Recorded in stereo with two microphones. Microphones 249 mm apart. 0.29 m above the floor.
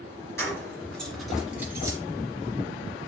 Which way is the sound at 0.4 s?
10° left (ahead or behind).